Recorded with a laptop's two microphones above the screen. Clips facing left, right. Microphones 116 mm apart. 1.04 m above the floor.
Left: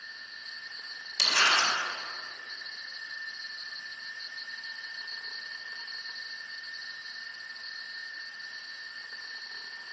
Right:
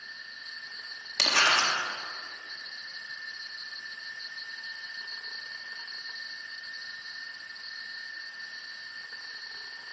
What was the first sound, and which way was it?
Crumpling, 70° right (ahead or behind).